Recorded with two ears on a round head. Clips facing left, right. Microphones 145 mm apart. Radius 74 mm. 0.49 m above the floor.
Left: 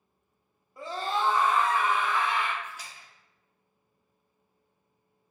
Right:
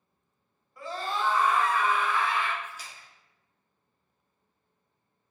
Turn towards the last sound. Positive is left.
turn(degrees=55)  # may be behind; listen again after turning